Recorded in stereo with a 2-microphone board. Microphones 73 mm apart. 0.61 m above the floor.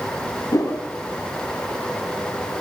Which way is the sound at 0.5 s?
60° left (ahead or behind).